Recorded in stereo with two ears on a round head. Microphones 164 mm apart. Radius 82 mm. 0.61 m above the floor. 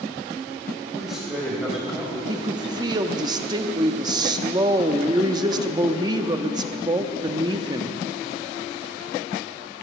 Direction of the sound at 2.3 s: 20° right (ahead or behind).